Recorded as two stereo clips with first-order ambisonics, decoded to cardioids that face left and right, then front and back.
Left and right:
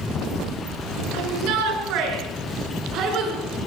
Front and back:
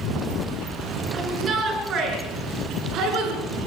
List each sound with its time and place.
1.1 s a shout: 115° right, 7 m; by 3.6 s 140° right, 7 m